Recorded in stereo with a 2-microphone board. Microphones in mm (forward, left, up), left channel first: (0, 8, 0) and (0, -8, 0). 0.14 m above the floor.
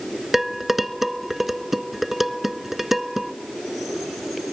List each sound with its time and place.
0.3 s dishes clattering: 15° right (ahead or behind), 1.1 m